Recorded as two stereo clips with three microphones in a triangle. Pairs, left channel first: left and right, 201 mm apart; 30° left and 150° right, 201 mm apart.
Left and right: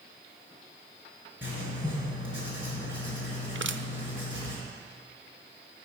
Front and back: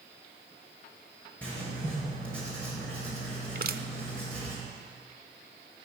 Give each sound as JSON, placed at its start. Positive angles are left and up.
{"t": 1.4, "sound": "writing", "azimuth_deg": 115, "distance_m": 5.0}
{"t": 3.5, "sound": "crushing", "azimuth_deg": -105, "distance_m": 0.5}